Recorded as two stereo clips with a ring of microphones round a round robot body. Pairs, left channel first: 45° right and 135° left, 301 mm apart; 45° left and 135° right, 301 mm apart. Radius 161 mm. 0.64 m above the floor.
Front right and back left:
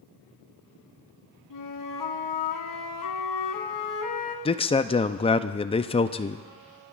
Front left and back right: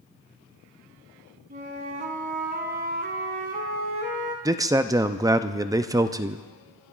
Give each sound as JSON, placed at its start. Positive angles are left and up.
{"t": 1.5, "sound": "a flute", "azimuth_deg": -70, "distance_m": 1.6}
{"t": 4.5, "sound": "a man speaking", "azimuth_deg": -75, "distance_m": 0.5}